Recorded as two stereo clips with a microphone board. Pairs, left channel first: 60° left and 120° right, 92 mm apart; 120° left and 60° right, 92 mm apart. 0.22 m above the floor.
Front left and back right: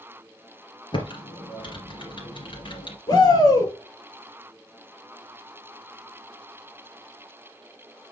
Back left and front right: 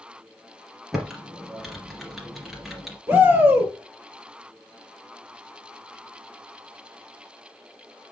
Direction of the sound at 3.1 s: 15° left.